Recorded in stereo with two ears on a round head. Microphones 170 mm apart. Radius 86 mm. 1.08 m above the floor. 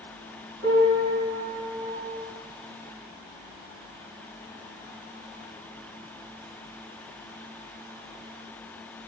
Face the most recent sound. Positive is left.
turn(degrees=-65)  # may be behind; listen again after turning